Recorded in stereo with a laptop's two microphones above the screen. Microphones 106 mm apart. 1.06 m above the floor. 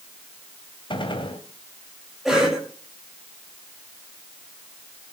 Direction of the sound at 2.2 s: 5° right (ahead or behind).